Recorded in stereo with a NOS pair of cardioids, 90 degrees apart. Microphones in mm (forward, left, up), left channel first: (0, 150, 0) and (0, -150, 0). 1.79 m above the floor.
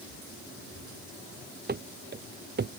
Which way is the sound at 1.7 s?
30° right.